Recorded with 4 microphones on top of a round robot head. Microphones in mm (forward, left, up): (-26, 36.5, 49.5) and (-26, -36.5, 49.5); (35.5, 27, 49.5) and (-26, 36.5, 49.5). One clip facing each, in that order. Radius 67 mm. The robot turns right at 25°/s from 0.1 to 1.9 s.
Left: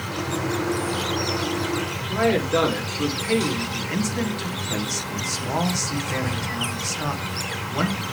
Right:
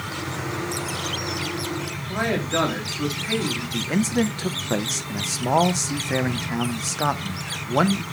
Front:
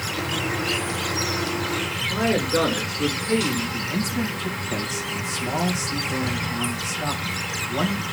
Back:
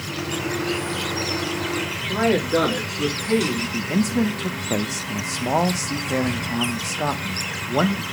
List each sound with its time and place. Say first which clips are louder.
0.0 s an insect: left 3 dB, front 1 dB; 40° left, 1.8 m; by 8.1 s 85° left, 1.8 m
2.1 s a man speaking: left 4 dB, back 3 dB; 170° right, 3 m
3.7 s a man speaking: right 3 dB, back 4 dB; 145° right, 1.0 m